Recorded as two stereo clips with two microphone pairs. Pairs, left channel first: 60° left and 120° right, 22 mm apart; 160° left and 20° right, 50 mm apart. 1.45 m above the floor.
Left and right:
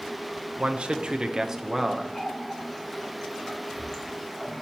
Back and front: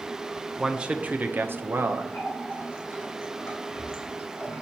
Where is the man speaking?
95° right, 0.7 m; by 2.0 s 35° right, 0.9 m.